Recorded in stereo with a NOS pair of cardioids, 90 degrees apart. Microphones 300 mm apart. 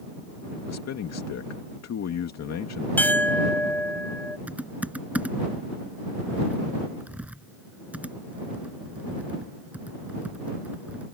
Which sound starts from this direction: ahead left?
A man speaking, at 0.7 s.